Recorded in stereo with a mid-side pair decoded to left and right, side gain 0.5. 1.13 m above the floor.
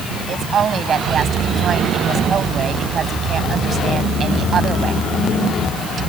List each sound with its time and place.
0.3 s a woman speaking: 45° right